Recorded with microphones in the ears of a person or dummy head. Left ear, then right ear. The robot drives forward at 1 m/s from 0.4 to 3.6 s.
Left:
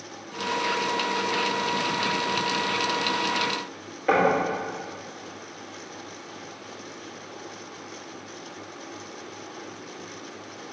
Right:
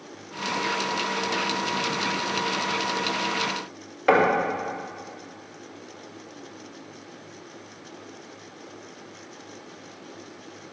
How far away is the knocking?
About 1.7 m.